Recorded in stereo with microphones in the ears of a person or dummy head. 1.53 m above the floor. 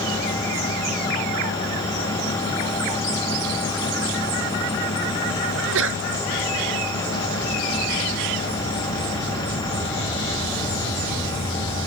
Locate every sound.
5.5 s a sneeze: 70° right (ahead or behind)